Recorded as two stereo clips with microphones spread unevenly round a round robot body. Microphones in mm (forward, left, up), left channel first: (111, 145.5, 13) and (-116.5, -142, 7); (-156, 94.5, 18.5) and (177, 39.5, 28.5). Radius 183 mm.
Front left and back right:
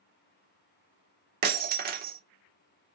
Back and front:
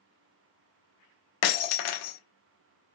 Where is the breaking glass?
165° left, 0.6 m.